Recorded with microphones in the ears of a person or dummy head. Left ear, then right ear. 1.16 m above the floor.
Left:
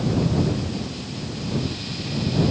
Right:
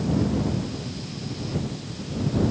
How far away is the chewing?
No chewing in this recording.